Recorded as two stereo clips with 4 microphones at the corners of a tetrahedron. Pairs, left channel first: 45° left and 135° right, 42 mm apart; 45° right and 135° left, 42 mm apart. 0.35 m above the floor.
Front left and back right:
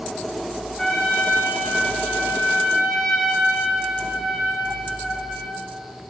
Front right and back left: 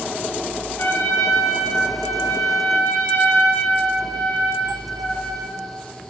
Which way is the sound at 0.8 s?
35° right.